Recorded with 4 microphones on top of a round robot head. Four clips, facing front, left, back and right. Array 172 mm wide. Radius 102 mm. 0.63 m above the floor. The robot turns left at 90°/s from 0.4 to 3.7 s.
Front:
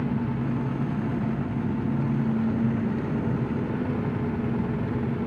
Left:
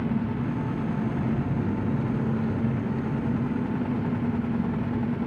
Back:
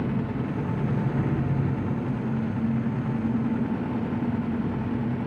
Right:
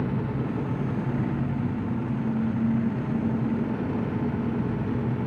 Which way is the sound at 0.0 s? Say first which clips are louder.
Left 1 dB, front 1 dB; 125° right.